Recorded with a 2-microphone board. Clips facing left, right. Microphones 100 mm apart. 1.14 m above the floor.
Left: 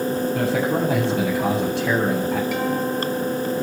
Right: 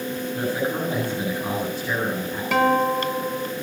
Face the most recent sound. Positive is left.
turn(degrees=-65)  # may be behind; listen again after turning